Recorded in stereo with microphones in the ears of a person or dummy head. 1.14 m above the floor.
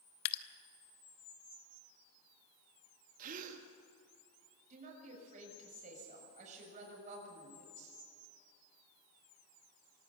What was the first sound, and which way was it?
Dripping, 60° left (ahead or behind).